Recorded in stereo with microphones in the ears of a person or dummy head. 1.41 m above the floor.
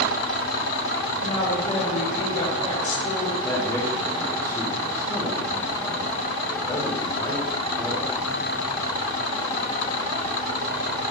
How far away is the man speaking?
About 1.7 m.